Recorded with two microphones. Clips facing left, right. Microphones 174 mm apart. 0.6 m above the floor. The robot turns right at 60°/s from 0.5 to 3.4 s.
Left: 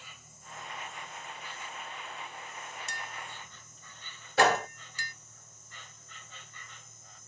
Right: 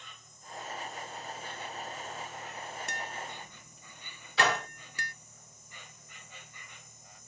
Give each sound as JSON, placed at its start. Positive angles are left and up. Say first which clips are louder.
{"t": 0.0, "sound": "an insect", "louder": "even", "azimuth_deg": 175, "distance_m": 1.0}
{"t": 2.9, "sound": "tapping", "louder": "right 3 dB", "side_deg": -60, "distance_m": 0.8}
{"t": 4.4, "sound": "a gunshot", "louder": "left 5 dB", "side_deg": 50, "distance_m": 2.0}